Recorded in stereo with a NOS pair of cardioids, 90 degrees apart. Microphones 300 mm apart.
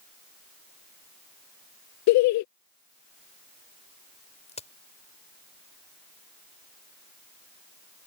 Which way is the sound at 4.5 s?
20° left.